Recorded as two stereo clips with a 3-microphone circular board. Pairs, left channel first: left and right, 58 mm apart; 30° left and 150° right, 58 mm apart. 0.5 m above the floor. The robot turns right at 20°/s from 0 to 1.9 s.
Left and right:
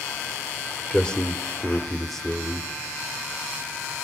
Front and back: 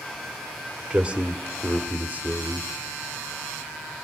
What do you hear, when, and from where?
0.9 s a man speaking: 150° left, 1.2 m; by 2.7 s 170° left, 1.2 m